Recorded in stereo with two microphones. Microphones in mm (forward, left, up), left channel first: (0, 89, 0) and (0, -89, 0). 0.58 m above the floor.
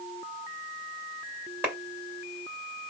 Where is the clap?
10° right (ahead or behind), 2 m.